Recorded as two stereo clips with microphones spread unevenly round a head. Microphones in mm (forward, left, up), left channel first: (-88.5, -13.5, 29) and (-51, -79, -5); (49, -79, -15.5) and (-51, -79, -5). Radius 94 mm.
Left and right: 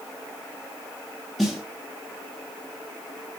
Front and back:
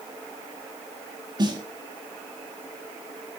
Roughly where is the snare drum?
Behind.